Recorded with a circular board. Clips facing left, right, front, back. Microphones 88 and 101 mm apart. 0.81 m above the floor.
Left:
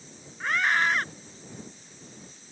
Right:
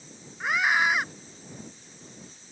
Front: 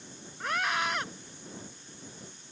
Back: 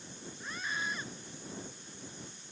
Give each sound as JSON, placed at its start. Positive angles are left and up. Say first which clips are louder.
{"t": 0.4, "sound": "a scream", "louder": "right 1 dB, front 9 dB", "azimuth_deg": -10}